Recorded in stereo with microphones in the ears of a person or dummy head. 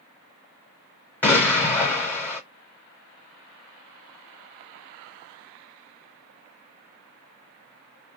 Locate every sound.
1.2 s an explosion: 10° left (ahead or behind), 1.2 m